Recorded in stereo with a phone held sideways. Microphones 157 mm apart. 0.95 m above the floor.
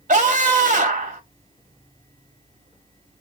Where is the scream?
50° right (ahead or behind), 2 m.